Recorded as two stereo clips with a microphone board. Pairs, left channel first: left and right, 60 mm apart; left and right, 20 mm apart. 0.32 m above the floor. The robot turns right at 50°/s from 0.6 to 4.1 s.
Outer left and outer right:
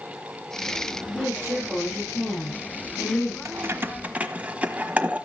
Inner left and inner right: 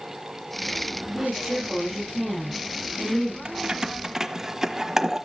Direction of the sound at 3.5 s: 50° right (ahead or behind).